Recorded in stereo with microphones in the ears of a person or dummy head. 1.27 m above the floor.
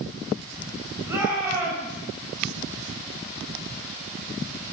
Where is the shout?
10° right (ahead or behind), 9 m.